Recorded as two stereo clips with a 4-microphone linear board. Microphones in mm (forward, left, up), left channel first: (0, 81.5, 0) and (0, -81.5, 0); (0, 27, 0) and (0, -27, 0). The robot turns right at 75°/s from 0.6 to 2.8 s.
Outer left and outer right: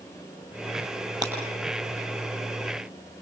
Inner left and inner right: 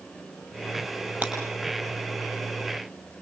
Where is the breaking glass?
25° right (ahead or behind), 6.5 m; by 1.4 s 15° right (ahead or behind), 6.5 m.